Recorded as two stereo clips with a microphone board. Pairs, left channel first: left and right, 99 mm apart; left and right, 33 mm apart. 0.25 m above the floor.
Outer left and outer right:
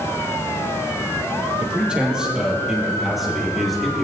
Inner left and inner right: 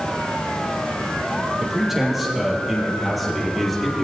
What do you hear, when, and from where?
1.6 s a man speaking: 10° right (ahead or behind), 5.5 m; by 4.0 s 5° left (ahead or behind), 5 m